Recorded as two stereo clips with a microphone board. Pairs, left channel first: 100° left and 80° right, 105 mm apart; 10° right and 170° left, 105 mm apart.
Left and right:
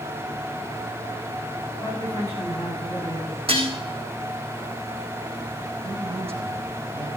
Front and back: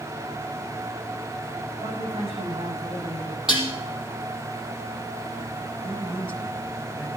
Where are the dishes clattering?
105° right, 5 m.